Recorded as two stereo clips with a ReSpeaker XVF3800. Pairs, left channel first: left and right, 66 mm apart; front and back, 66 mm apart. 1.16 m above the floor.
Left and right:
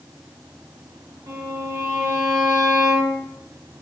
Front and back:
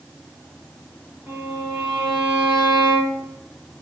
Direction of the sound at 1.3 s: 110° right.